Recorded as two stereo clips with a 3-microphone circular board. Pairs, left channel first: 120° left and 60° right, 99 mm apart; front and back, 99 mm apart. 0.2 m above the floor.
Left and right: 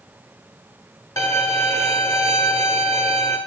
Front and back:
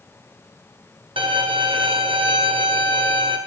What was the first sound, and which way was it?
A violin, 170° left.